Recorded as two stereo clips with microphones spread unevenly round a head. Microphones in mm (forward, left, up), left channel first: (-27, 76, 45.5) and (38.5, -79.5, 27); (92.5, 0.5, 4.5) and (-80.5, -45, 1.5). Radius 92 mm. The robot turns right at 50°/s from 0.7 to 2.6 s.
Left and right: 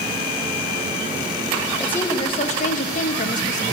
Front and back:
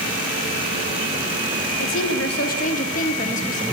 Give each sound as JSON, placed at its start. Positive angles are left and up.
{"t": 1.8, "sound": "a woman speaking", "azimuth_deg": 25, "distance_m": 1.7}